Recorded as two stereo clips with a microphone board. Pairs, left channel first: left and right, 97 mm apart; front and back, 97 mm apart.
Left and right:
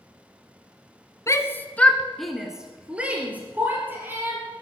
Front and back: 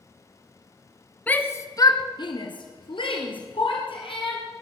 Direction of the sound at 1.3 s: 65° left.